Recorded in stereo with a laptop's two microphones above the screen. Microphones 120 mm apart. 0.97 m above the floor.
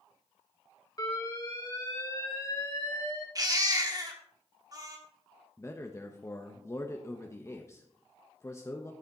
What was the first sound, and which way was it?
An alarm, 30° left (ahead or behind).